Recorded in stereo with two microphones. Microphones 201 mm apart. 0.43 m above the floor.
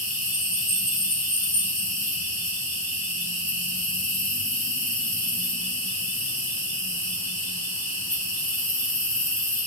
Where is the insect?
35° right (ahead or behind), 1.2 m.